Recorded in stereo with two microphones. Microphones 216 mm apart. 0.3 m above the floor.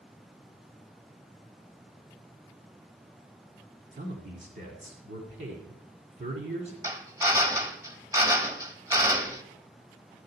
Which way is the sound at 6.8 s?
15° right (ahead or behind).